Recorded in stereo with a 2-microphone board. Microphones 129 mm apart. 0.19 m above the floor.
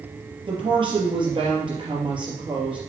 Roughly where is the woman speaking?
Right.